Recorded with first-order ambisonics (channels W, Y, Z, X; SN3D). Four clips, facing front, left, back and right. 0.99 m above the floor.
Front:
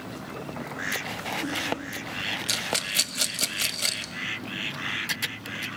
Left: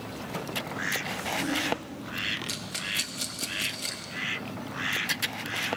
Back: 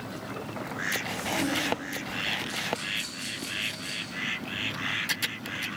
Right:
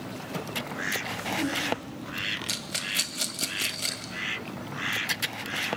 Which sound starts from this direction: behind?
A zipper, at 1.1 s.